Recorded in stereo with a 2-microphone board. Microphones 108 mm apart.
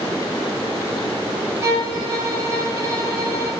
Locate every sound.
1.6 s a violin: 25° right (ahead or behind), 3.5 m